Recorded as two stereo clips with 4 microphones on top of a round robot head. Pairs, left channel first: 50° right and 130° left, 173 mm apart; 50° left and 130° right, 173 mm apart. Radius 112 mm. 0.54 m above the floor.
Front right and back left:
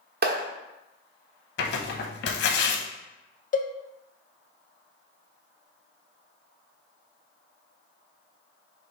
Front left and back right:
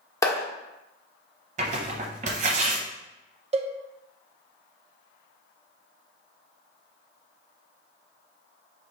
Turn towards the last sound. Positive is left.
turn(degrees=-80)